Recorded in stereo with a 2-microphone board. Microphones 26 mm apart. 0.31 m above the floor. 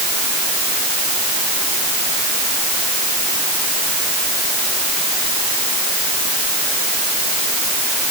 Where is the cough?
No cough in this recording.